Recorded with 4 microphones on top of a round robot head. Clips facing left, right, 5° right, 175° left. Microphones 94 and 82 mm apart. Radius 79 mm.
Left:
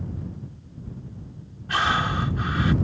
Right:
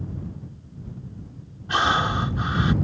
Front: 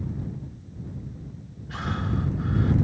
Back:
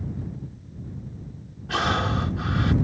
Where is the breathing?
155° right.